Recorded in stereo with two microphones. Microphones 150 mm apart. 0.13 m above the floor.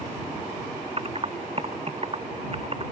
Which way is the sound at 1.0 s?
45° right (ahead or behind).